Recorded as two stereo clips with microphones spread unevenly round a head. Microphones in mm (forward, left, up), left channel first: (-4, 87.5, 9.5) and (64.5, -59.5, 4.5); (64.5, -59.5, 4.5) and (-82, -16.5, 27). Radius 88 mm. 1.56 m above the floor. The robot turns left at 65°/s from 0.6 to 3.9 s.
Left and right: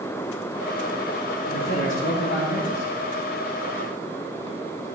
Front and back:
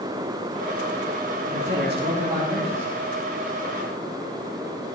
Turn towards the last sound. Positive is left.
turn(degrees=0)